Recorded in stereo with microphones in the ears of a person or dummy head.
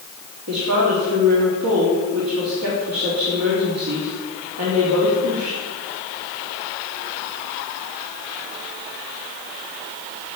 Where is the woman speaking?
85° right, 4.5 m.